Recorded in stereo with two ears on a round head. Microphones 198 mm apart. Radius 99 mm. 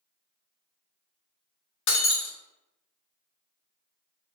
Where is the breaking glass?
60° left (ahead or behind), 0.7 m.